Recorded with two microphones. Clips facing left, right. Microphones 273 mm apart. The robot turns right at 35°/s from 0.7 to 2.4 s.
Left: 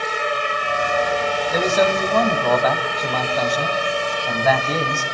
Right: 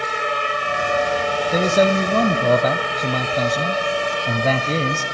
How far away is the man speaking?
About 1.8 m.